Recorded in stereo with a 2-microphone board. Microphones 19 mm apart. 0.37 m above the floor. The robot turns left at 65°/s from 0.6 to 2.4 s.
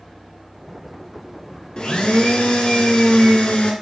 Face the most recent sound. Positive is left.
turn(degrees=80)